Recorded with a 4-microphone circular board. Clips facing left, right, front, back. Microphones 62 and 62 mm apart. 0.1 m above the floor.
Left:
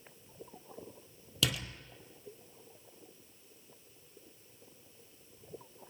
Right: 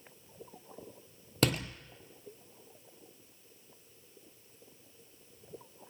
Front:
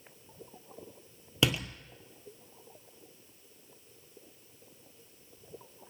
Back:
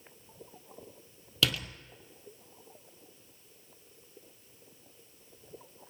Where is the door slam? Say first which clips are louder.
Right 5 dB, front 2 dB; 65° right, 1.8 m.